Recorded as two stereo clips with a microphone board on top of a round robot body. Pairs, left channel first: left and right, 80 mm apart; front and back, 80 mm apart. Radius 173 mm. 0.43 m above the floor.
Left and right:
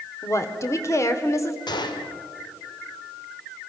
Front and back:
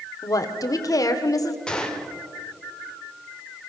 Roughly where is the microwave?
No microwave in this recording.